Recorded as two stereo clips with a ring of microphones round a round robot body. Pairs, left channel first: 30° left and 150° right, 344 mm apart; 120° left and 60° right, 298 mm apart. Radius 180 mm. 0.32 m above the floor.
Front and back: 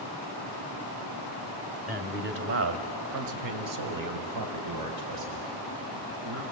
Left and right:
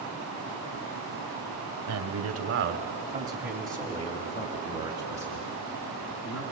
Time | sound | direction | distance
1.9 | a man speaking | 85° right | 2 m